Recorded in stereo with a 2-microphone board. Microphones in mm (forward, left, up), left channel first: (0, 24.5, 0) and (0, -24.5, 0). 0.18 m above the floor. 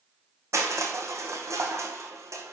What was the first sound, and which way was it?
Crushing, 75° right (ahead or behind).